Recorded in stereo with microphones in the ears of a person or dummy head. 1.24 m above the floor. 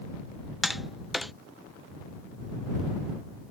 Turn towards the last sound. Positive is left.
turn(degrees=0)  # may be behind; listen again after turning